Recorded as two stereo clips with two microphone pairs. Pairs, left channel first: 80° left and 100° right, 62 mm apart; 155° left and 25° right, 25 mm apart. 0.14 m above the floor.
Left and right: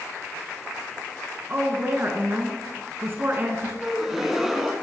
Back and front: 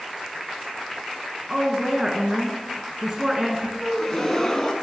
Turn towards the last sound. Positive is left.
turn(degrees=-170)